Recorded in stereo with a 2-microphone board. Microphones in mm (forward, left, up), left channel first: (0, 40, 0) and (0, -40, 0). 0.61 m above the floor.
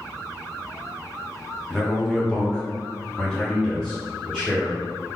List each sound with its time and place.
1.7 s a man speaking: 5° left (ahead or behind), 1.0 m; by 5.2 s 10° left (ahead or behind), 1.6 m